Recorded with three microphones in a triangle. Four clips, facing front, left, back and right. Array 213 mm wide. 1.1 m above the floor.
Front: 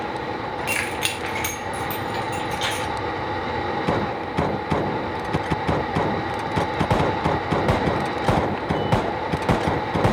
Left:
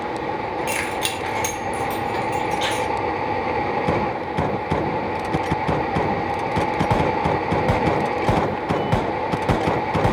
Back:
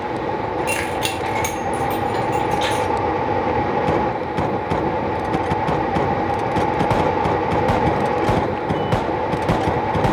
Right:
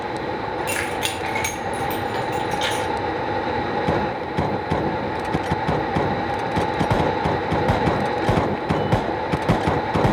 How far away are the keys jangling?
About 0.7 m.